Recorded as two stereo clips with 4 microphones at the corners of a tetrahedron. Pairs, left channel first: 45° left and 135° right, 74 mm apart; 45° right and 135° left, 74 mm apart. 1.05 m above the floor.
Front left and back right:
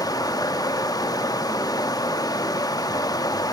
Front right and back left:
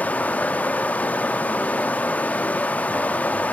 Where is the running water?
25° left, 0.8 m.